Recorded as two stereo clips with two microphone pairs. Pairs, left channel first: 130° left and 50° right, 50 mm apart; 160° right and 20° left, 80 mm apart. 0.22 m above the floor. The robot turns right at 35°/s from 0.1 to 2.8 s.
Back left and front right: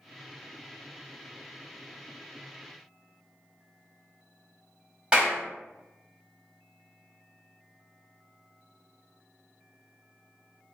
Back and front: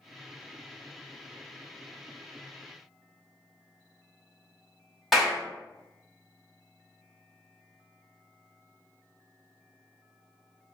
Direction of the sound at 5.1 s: 70° right.